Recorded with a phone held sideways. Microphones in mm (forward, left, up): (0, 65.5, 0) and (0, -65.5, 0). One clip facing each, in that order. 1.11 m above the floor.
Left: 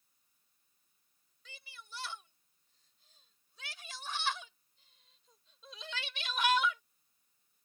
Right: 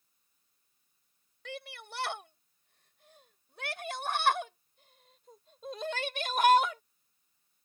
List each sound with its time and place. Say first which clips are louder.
1.4 s a shout: right 12 dB; 70° right (ahead or behind); by 6.8 s 45° right (ahead or behind)